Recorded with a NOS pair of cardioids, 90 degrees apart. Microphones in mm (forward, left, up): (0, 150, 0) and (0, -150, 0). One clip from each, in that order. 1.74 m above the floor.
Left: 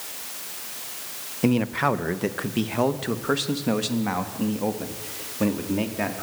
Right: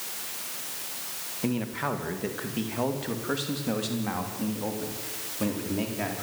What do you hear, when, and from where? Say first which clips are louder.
1.4 s a man speaking: left 8 dB; 45° left, 1.6 m; by 6.2 s 35° left, 4 m